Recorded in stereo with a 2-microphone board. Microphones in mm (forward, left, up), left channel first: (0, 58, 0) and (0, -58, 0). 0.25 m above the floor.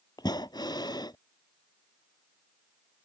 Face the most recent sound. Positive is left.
turn(degrees=40)  # may be behind; listen again after turning